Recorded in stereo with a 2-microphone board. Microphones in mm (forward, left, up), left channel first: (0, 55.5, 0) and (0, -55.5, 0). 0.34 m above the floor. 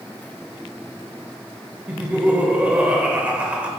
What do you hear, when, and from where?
1.9 s laughter: 15° right (ahead or behind), 1.1 m